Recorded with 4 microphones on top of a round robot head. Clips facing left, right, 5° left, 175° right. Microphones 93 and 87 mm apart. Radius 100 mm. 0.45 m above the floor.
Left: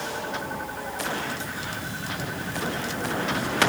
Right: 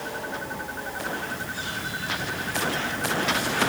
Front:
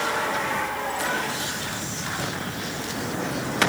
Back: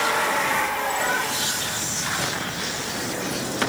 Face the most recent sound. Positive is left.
No sound to turn to.